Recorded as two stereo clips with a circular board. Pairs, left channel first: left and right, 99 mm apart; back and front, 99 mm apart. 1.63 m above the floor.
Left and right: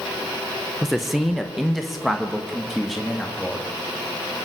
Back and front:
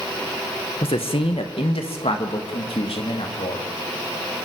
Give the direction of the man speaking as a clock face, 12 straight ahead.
6 o'clock.